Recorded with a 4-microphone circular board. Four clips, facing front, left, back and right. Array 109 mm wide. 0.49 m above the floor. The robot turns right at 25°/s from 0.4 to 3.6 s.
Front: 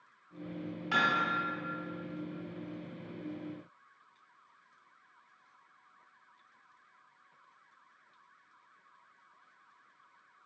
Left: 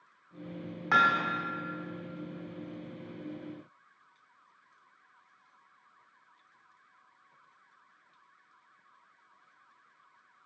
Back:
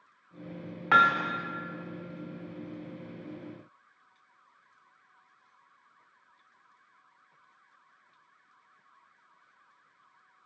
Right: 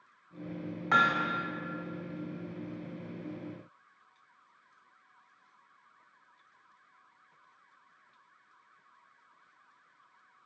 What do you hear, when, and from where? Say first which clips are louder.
0.9 s hammering: left 1 dB, back 7 dB; 165° left, 0.9 m; by 1.3 s 175° left, 0.9 m